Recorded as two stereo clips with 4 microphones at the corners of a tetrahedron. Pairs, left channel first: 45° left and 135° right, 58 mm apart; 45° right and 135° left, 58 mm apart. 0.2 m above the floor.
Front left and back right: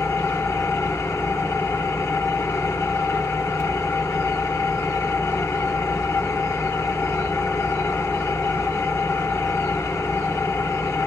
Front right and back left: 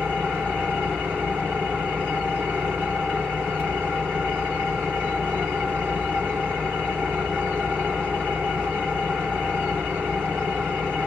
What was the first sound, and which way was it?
An engine running, 75° left.